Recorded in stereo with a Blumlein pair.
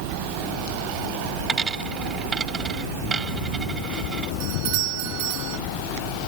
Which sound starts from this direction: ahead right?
A doorbell, at 4.4 s.